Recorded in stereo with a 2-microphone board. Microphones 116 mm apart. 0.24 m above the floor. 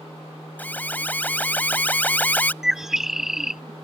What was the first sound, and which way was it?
An alarm, 15° left (ahead or behind).